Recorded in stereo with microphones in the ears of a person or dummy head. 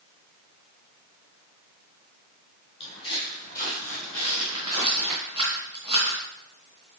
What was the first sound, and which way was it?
Footsteps, 35° left (ahead or behind).